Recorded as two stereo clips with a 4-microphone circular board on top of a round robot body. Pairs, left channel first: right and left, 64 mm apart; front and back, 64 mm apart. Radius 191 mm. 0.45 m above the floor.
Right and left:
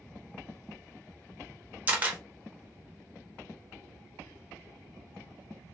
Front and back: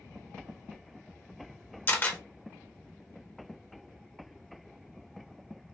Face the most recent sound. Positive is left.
turn(degrees=40)